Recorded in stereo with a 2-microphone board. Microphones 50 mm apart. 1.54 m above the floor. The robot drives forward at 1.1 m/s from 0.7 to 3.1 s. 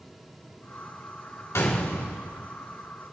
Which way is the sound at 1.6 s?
85° left.